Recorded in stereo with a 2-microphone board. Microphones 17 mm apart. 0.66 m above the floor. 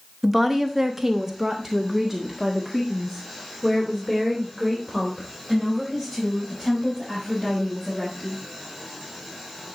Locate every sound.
0.2 s a woman speaking: 10° right (ahead or behind), 1.3 m